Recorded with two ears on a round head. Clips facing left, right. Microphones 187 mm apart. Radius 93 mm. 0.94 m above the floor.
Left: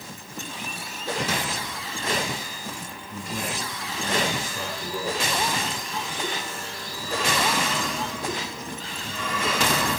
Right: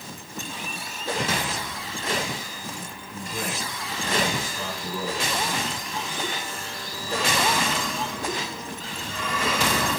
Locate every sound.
3.1 s a man speaking: 20° left (ahead or behind), 9.5 m